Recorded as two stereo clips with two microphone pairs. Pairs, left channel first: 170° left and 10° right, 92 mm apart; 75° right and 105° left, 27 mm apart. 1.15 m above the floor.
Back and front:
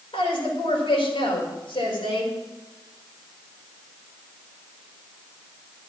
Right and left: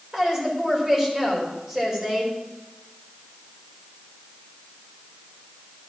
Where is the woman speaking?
Straight behind, 4.5 m.